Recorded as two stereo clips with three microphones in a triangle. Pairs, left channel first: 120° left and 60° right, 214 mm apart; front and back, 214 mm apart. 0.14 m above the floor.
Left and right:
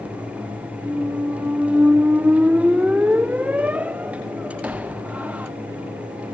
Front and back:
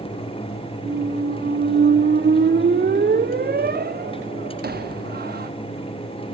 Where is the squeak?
145° right, 0.5 m.